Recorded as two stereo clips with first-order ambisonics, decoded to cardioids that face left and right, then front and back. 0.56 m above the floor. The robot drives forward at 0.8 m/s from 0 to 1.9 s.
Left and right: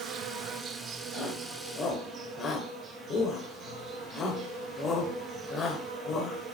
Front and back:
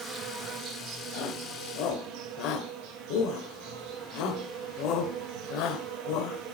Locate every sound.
0.0 s an insect: 125° right, 1.3 m; by 6.5 s 155° right, 2.5 m
1.1 s a shout: 20° left, 2.5 m; by 6.4 s 30° left, 1.8 m